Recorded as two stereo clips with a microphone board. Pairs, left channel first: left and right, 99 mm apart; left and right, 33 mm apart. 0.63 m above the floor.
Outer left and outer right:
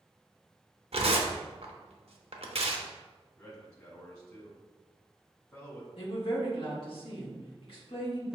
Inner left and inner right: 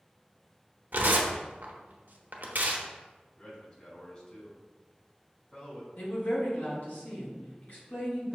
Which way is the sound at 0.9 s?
80° right.